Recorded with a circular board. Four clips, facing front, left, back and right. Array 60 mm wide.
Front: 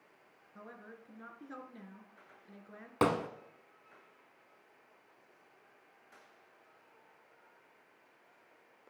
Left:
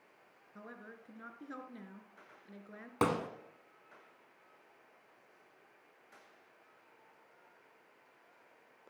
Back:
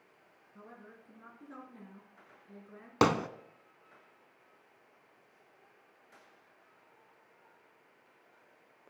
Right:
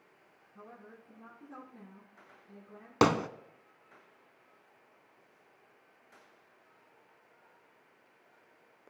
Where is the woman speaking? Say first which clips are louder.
Left 1 dB, front 2 dB; 70° left, 2 m.